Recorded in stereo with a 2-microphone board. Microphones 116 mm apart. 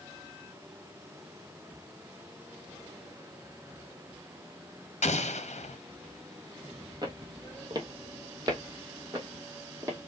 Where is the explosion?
80° left, 0.8 m.